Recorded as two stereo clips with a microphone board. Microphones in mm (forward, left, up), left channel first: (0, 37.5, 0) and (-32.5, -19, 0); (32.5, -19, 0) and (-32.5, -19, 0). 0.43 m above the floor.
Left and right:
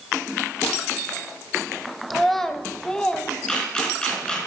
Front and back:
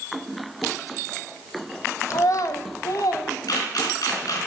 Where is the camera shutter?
15° right, 4 m.